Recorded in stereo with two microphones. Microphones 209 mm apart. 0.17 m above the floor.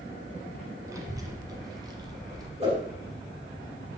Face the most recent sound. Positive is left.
turn(degrees=-30)  # may be behind; listen again after turning